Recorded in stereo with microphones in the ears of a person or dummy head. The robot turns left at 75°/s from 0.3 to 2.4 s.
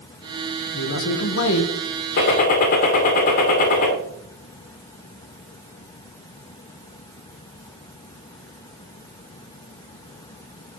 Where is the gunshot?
50° left (ahead or behind), 1.8 m.